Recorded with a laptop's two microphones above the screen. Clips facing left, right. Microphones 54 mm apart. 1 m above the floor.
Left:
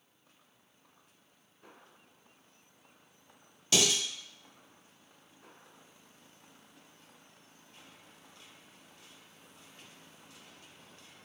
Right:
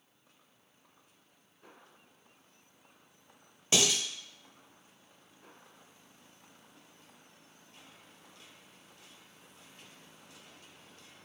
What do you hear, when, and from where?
3.7 s dishes clattering: 25° right (ahead or behind), 0.9 m